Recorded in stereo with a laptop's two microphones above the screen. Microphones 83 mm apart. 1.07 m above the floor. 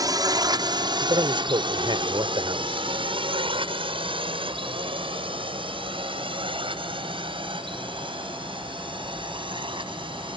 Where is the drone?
45° right (ahead or behind); by 10.4 s 65° right (ahead or behind).